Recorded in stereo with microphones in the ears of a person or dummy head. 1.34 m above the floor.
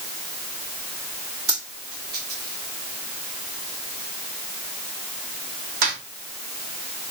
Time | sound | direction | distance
1.5 | a dropped coin | 50° right (ahead or behind) | 1.3 m